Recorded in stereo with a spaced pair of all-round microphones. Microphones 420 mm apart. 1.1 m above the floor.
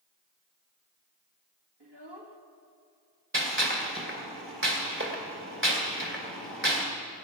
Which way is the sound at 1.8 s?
70° right (ahead or behind).